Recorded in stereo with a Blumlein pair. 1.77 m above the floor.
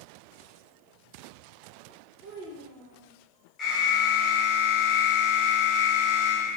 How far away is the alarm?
About 1.1 m.